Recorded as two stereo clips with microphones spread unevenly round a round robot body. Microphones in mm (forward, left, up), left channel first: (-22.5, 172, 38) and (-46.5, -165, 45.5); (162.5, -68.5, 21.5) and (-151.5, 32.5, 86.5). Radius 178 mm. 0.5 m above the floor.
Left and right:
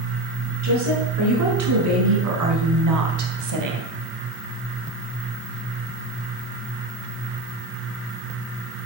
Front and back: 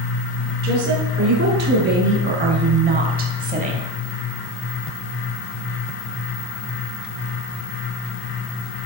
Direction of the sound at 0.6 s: 140° right.